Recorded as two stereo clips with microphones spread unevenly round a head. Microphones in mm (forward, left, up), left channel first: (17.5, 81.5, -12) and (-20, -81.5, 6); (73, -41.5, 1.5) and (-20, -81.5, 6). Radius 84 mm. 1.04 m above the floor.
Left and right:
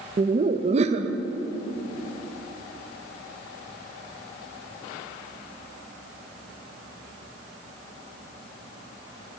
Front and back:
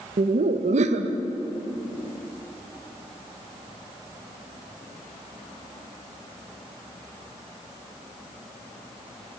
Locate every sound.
0.2 s laughter: 160° right, 0.5 m